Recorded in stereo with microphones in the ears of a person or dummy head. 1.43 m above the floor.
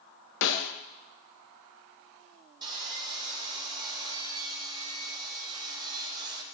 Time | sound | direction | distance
0.4 | a snare drum | 70° left (ahead or behind) | 0.9 m
2.6 | sawing | 25° right (ahead or behind) | 3 m